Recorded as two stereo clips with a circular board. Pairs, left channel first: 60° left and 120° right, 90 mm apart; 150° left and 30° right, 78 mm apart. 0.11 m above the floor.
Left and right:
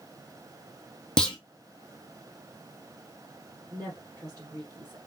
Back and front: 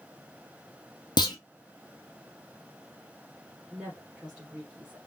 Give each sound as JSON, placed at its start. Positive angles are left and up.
{"t": 1.2, "sound": "a clunk", "azimuth_deg": 140, "distance_m": 0.8}
{"t": 3.7, "sound": "a woman speaking", "azimuth_deg": -105, "distance_m": 1.9}